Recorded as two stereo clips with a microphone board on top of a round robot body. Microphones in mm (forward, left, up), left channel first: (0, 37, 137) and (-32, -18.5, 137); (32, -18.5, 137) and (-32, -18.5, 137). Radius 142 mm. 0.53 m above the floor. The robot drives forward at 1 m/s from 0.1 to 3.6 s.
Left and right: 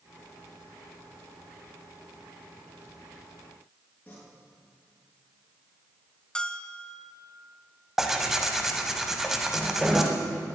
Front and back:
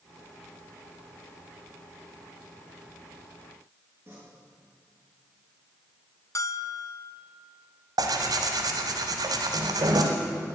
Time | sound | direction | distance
4.1 | tearing paper | 120° left | 7 m
6.3 | a bell | 15° right | 0.9 m
8.0 | tearing paper | 155° left | 1.2 m